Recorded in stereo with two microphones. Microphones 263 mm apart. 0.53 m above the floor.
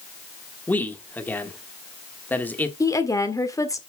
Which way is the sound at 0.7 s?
5° left (ahead or behind).